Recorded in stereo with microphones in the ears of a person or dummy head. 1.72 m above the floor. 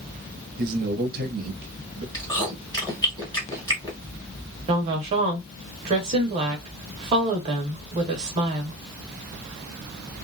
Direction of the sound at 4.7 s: 30° right (ahead or behind).